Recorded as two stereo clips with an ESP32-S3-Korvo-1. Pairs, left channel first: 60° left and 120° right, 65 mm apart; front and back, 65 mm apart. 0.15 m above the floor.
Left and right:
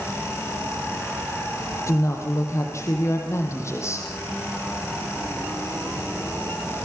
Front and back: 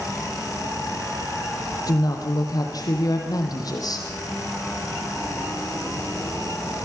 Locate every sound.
1.9 s a woman speaking: 20° left, 4.5 m; by 4.1 s 15° left, 6 m